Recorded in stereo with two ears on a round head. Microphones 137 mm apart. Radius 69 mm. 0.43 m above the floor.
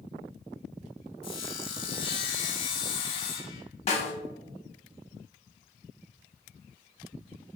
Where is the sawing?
35° left (ahead or behind), 0.5 m.